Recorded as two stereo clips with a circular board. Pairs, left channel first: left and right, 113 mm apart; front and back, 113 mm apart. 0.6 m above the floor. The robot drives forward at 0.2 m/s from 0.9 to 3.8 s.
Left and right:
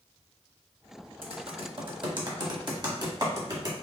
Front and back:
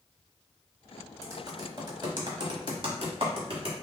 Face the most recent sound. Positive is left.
turn(degrees=-145)